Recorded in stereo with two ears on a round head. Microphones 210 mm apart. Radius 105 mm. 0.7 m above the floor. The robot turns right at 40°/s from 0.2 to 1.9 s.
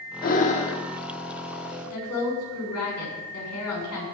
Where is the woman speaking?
70° left (ahead or behind), 7 m.